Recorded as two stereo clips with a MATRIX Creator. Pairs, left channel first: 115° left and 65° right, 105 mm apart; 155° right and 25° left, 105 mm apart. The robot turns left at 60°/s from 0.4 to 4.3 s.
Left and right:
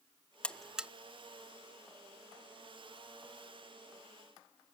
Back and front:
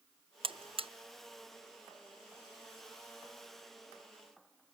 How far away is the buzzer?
About 0.7 m.